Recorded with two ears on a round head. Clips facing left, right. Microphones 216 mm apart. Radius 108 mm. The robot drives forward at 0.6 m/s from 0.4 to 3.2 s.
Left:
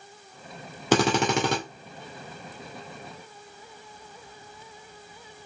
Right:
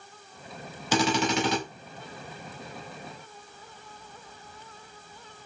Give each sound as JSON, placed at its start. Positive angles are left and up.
{"t": 0.9, "sound": "a drill", "side_deg": 50, "distance_m": 2.0}